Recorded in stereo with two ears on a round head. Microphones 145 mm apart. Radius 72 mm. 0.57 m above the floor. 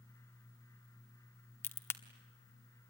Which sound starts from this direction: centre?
A crack, at 1.6 s.